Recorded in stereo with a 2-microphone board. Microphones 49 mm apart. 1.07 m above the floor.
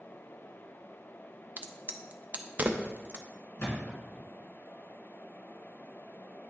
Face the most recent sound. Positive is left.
turn(degrees=65)  # may be behind; listen again after turning